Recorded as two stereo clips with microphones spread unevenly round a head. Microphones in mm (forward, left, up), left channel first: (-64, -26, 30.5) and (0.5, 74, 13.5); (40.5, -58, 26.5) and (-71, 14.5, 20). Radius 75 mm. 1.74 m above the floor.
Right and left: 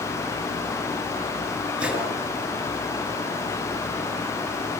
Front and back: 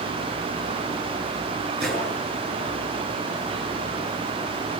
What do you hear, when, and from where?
1.8 s a gunshot: 140° left, 6.5 m